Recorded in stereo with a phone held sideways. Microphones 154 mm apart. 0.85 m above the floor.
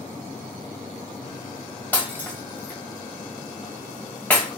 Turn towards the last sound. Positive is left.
turn(degrees=10)  # may be behind; listen again after turning